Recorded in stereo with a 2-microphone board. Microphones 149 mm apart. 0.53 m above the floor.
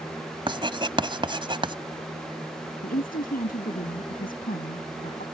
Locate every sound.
0.5 s writing: 35° right (ahead or behind)
2.8 s a woman speaking: 80° left